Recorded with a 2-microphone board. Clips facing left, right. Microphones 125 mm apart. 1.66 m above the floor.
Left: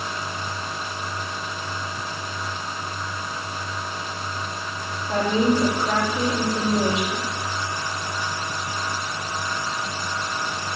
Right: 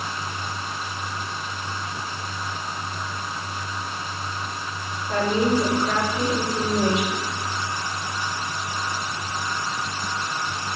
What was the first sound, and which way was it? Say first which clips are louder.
A woman speaking: left 1 dB; 15° left (ahead or behind).